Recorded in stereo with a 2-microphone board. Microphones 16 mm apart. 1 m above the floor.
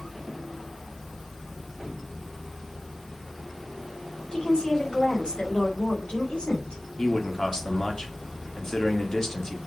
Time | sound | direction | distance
4.3 | a woman speaking | 65° left (ahead or behind) | 5 m
7.0 | a man speaking | 40° left (ahead or behind) | 2.5 m